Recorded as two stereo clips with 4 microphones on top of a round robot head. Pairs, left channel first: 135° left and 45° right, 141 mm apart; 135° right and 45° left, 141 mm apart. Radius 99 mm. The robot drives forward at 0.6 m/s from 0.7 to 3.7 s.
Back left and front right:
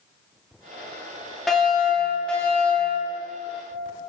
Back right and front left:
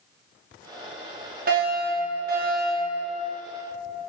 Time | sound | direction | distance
1.5 | a fire alarm | 45° left | 5 m